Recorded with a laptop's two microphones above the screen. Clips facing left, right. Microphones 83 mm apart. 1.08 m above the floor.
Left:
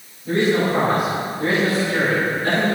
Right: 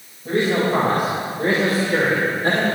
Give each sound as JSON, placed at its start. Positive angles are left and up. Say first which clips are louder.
{"t": 0.2, "sound": "a man speaking", "louder": "left 1 dB", "side_deg": -65, "distance_m": 5.0}